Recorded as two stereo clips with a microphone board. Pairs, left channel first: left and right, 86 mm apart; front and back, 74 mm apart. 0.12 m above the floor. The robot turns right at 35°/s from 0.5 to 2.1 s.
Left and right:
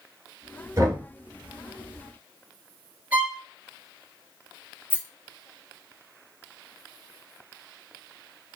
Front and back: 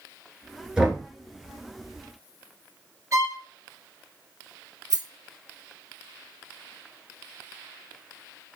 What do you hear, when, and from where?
0.8 s knocking: 105° right, 1.8 m; by 1.0 s 95° right, 1.8 m
3.1 s a violin: 155° right, 0.9 m
4.9 s a rattle: 150° left, 0.9 m